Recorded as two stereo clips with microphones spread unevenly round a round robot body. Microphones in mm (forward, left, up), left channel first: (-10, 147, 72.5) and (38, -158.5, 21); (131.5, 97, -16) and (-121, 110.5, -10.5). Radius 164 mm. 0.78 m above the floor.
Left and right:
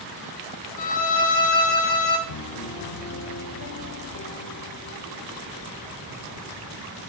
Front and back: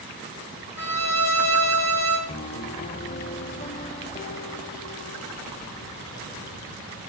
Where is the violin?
80° left, 2 m.